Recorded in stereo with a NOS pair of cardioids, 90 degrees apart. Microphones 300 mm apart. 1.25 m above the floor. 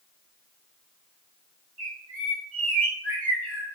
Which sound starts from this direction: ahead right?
A bird, at 1.8 s.